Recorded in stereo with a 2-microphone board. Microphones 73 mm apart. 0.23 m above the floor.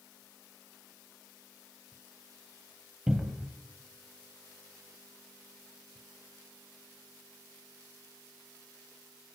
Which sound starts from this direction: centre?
A cupboard door, at 3.1 s.